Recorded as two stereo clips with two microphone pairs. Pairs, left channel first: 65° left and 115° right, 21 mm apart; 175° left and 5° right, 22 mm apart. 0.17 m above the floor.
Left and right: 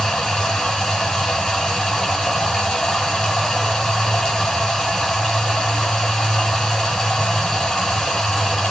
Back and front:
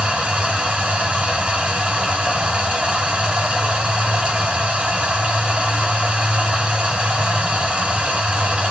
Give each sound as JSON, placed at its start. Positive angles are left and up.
{"t": 0.0, "sound": "running water", "azimuth_deg": -5, "distance_m": 5.0}